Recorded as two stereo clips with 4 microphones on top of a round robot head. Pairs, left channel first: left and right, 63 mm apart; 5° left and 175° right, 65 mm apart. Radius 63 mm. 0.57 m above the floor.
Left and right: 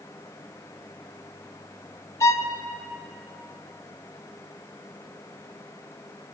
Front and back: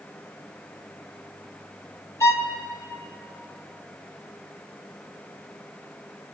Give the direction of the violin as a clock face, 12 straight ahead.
10 o'clock.